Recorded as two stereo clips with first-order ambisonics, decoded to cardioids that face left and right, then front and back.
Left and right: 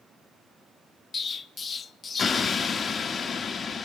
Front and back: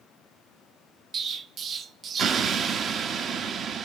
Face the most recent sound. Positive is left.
turn(degrees=145)